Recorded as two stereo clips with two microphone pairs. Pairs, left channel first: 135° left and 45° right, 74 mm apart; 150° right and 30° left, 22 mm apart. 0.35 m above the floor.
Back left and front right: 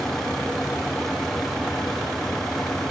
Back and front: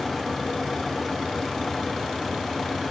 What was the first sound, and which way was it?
Only background noise.